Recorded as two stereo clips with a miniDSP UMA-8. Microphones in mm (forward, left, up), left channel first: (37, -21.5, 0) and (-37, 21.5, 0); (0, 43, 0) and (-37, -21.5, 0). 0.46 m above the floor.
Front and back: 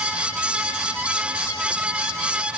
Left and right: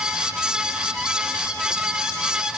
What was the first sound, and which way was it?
Only background noise.